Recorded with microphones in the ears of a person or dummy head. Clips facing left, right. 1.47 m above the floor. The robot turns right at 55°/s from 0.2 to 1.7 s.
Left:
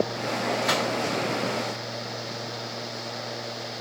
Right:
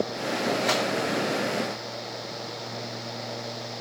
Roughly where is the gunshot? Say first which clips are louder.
Even; centre.